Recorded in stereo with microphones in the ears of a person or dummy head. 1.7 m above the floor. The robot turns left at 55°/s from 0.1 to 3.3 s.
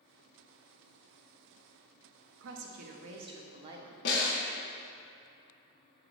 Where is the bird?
No bird in this recording.